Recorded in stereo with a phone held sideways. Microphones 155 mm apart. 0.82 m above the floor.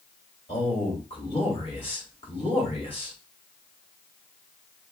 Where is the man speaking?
40° left (ahead or behind), 4.5 m.